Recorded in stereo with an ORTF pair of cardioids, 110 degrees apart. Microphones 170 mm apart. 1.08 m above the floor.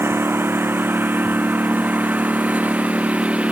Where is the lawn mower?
15° right; by 3.5 s 5° right.